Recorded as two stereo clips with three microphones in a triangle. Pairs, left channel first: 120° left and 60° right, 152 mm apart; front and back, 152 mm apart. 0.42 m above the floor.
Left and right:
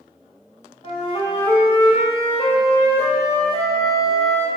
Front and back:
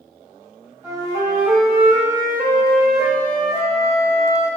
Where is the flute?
125° left, 1.1 m.